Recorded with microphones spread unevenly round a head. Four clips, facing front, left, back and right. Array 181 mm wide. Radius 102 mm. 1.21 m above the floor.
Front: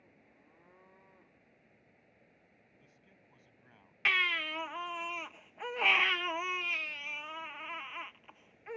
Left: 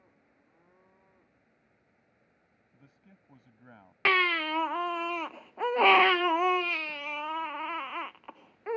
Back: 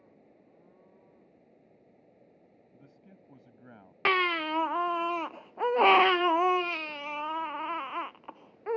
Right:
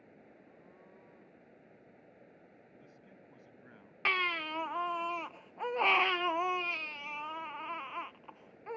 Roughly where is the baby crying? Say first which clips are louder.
Left 7 dB, back 8 dB; behind left.